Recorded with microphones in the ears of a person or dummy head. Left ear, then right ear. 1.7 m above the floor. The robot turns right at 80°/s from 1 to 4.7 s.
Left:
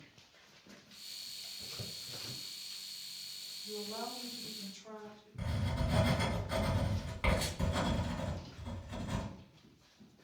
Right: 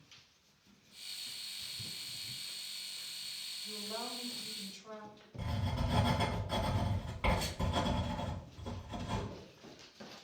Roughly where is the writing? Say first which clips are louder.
Even; centre.